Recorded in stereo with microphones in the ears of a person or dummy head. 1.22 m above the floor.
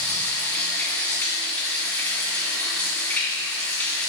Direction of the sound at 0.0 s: 10° left (ahead or behind).